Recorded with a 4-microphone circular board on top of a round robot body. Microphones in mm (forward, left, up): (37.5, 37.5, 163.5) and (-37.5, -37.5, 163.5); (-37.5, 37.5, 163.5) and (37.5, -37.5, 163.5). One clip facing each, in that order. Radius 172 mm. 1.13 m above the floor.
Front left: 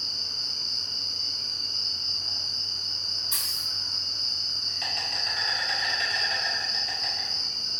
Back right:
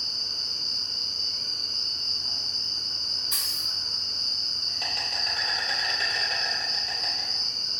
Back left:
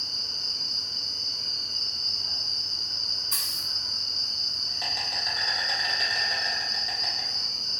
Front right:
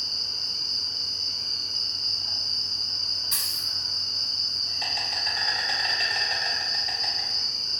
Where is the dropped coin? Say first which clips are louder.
Even, even; 70° right, 1.2 m.